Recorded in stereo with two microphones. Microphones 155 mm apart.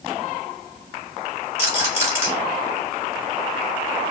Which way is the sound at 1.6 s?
20° right (ahead or behind).